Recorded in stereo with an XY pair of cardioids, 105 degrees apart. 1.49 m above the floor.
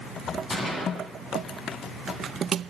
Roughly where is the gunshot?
Ahead left.